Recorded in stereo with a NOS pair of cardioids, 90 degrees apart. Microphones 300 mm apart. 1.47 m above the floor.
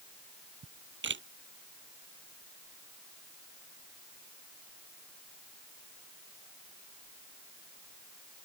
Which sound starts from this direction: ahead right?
A camera shutter, at 0.6 s.